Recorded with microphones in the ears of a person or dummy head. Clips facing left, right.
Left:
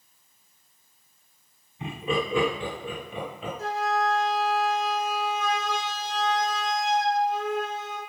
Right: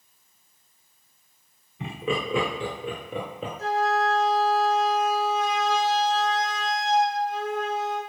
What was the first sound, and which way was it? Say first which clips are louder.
Laughter: even; 55° right (ahead or behind).